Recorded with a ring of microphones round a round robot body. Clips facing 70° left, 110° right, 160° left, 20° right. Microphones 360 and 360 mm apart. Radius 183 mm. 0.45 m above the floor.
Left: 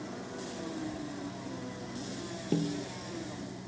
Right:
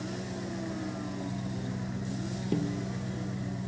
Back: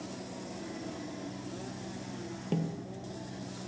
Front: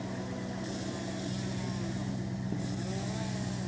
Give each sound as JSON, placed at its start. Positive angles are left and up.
{"t": 0.0, "sound": "an engine running", "azimuth_deg": -75}
{"t": 2.5, "sound": "a snare drum", "azimuth_deg": 160}